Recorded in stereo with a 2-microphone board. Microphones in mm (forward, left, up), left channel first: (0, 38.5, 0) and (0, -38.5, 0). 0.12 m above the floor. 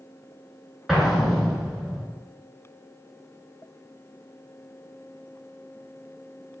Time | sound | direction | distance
0.9 | an explosion | centre (ahead or behind) | 0.7 m